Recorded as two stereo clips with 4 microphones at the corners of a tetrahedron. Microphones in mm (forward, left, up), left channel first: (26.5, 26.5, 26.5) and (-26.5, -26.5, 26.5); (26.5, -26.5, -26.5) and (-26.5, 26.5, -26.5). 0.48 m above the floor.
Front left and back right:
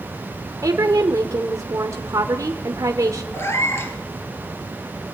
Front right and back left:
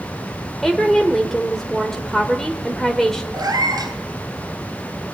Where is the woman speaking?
130° right, 1.7 m.